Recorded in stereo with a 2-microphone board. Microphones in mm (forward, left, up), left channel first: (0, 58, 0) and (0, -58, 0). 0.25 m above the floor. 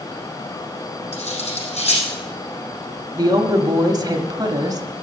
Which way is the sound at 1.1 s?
70° left (ahead or behind).